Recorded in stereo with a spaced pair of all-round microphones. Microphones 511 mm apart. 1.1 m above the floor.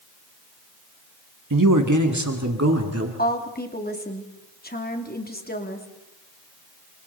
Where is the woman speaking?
15° left (ahead or behind), 2.5 m.